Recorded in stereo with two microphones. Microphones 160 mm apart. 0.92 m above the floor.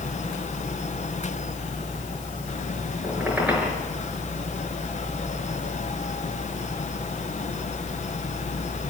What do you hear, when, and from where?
3.0 s a squeak: 10° right (ahead or behind), 5.5 m